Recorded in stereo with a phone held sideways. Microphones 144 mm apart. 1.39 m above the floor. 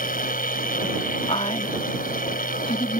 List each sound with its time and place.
0.0 s a machine running: 75° left (ahead or behind)
1.3 s a woman speaking: 45° left (ahead or behind)